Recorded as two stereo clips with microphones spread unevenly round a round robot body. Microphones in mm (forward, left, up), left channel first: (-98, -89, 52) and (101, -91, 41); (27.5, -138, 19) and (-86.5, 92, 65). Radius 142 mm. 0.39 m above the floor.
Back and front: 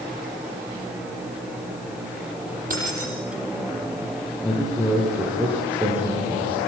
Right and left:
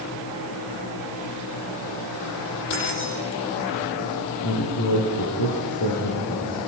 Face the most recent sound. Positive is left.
turn(degrees=-85)